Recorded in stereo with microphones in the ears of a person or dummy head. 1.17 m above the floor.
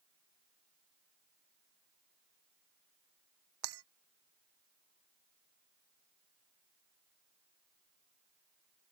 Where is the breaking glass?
80° right.